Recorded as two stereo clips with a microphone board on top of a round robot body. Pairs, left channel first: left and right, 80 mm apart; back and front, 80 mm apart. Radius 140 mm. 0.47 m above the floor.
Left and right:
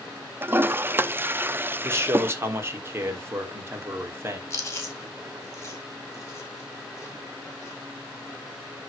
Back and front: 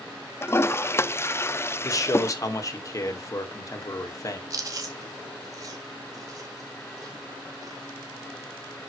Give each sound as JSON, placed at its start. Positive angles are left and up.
{"t": 0.4, "sound": "a toilet flushing", "azimuth_deg": -140, "distance_m": 0.6}
{"t": 1.8, "sound": "a man speaking", "azimuth_deg": -145, "distance_m": 2.0}
{"t": 4.5, "sound": "chewing", "azimuth_deg": 35, "distance_m": 2.5}